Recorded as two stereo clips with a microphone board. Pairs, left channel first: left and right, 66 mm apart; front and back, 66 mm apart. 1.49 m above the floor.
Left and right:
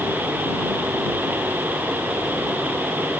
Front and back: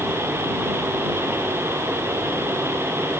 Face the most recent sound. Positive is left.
No sound to turn to.